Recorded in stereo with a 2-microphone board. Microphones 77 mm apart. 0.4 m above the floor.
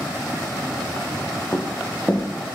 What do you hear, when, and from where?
1.5 s running footsteps: 15° left (ahead or behind), 1.5 m